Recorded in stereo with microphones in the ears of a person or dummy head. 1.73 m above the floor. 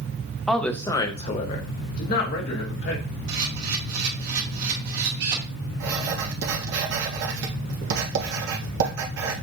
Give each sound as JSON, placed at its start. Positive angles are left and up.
{"t": 0.5, "sound": "a woman speaking", "side_deg": 5, "distance_m": 0.7}
{"t": 3.3, "sound": "a camera shutter", "side_deg": -50, "distance_m": 1.9}
{"t": 5.8, "sound": "writing", "side_deg": -55, "distance_m": 1.3}